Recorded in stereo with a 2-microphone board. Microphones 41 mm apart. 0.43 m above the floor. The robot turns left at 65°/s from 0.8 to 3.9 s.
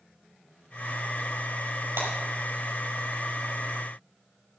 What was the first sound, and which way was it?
Breaking glass, 80° right.